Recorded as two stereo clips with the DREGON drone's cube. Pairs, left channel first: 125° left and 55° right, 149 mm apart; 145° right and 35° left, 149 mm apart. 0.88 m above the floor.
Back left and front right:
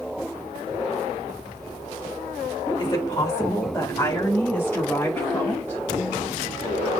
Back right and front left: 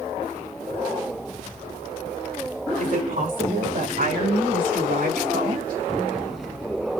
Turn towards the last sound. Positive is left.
turn(degrees=45)